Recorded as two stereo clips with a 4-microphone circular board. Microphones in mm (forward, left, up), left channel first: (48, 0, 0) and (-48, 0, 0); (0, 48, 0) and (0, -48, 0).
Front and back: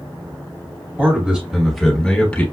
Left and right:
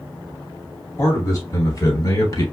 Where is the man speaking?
120° left, 1.3 m; by 2.4 s 65° left, 1.5 m.